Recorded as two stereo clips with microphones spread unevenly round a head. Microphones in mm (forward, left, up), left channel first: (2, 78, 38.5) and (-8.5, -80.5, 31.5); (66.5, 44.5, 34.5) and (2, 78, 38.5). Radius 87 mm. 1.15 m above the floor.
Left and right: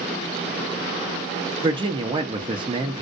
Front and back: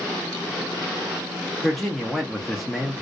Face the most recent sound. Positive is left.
turn(degrees=-110)